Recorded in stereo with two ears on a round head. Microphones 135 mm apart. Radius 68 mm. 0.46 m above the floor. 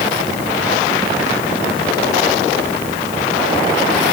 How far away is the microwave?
No microwave in this recording.